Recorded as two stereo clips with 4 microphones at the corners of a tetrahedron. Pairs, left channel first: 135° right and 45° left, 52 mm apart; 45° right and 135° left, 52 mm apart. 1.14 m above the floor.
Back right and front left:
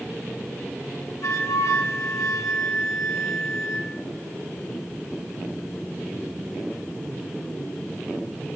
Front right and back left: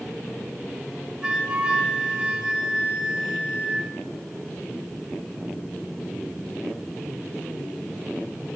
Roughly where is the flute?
Behind right.